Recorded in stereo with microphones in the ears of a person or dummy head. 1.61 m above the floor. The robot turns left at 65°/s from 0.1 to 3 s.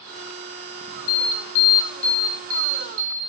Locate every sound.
1.1 s an alarm: 80° left, 1.5 m; by 3.2 s 45° right, 1.5 m